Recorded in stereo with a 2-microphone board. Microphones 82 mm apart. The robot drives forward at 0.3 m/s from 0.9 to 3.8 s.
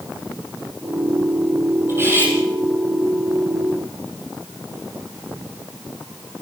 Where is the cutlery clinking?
30° right (ahead or behind), 7 m.